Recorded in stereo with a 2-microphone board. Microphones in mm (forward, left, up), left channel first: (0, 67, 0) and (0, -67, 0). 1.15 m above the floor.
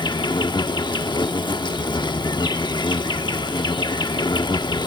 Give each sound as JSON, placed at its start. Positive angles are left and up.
{"t": 0.0, "sound": "an insect", "side_deg": 35}